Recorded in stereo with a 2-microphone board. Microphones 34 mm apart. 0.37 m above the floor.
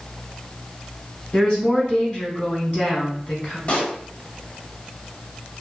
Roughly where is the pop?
Left.